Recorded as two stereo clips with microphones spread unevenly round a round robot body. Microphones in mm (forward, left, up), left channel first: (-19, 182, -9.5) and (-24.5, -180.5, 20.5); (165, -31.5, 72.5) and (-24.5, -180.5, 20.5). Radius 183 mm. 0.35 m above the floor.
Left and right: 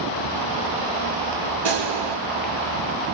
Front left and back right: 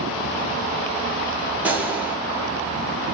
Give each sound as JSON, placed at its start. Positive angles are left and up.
{"t": 1.6, "sound": "a gunshot", "azimuth_deg": -60, "distance_m": 1.0}